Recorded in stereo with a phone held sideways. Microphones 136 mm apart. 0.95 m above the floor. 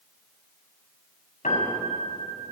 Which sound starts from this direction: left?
A piano, at 1.4 s.